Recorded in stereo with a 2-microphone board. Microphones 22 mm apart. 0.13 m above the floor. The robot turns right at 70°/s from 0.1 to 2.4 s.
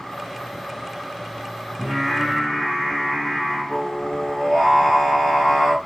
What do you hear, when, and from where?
1.8 s singing: 55° left, 2 m; by 5.8 s 95° left, 2 m